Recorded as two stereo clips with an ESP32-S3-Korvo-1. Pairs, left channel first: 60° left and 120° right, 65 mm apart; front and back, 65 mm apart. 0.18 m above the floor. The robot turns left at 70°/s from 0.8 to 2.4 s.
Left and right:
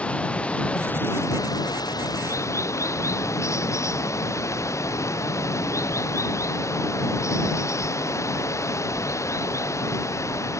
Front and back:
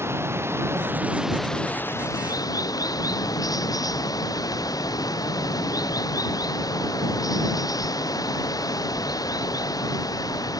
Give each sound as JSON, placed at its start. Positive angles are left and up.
{"t": 0.0, "sound": "running water", "azimuth_deg": 130}